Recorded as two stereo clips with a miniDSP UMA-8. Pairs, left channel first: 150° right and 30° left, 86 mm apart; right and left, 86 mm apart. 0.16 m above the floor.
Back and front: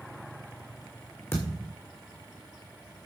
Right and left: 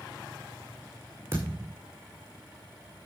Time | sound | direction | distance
1.3 | a thud | 150° left | 5 m